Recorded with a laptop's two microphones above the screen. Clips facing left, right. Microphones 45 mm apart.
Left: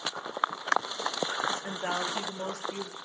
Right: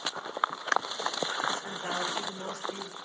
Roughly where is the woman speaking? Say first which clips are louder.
Left 1 dB; left.